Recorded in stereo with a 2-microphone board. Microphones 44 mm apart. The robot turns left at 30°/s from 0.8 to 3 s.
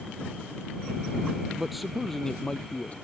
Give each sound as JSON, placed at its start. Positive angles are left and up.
{"t": 1.6, "sound": "a man speaking", "azimuth_deg": -170}